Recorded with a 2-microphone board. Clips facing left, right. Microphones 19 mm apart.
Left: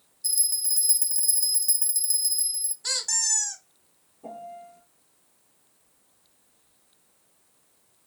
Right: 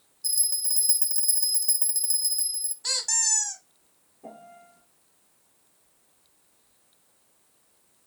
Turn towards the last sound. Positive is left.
turn(degrees=5)  # may be behind; listen again after turning